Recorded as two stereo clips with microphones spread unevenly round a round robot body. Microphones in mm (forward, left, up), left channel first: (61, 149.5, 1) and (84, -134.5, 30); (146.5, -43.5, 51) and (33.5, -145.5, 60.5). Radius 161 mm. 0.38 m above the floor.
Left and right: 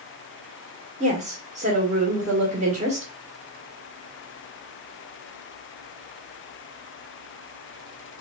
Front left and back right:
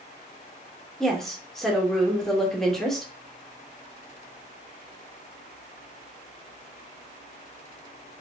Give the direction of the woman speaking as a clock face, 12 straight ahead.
1 o'clock.